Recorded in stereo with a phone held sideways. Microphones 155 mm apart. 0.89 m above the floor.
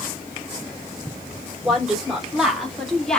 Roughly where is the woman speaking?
Centre.